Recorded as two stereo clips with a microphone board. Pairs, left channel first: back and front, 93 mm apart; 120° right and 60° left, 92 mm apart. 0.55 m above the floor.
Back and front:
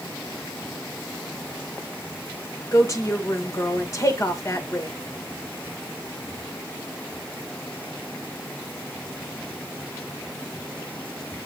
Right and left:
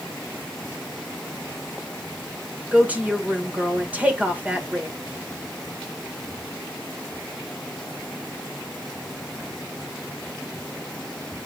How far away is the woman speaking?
About 1.8 m.